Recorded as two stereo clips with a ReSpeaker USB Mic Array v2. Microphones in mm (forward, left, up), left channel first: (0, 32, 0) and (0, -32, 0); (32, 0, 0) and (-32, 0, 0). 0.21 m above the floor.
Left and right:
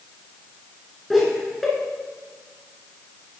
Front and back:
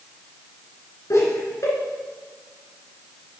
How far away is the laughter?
About 2 m.